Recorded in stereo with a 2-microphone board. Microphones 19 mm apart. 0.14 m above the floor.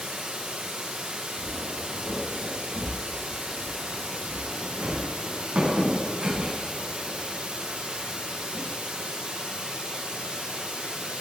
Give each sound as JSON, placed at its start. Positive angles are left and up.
{"t": 0.0, "sound": "running water", "side_deg": -80, "distance_m": 4.0}
{"t": 1.4, "sound": "footsteps", "side_deg": -65, "distance_m": 5.5}